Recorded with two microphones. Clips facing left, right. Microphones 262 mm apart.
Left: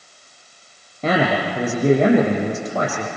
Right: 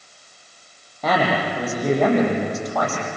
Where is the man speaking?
30° left (ahead or behind), 7 m.